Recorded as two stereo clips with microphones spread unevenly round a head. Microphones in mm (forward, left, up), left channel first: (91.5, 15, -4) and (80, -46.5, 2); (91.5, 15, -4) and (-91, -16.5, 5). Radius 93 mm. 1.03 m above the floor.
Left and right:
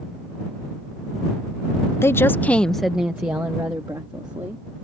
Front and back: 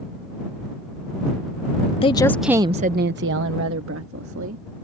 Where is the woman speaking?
60° left; by 4.6 s 155° right.